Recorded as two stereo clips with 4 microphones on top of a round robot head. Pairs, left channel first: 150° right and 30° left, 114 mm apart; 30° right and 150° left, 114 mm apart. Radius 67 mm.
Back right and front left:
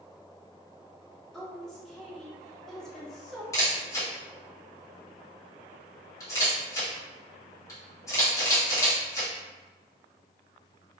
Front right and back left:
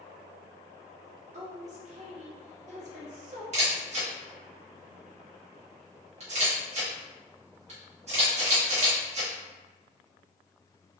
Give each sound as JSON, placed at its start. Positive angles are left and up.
{"t": 1.3, "sound": "a woman speaking", "azimuth_deg": 125, "distance_m": 1.6}
{"t": 3.5, "sound": "a camera shutter", "azimuth_deg": 155, "distance_m": 2.0}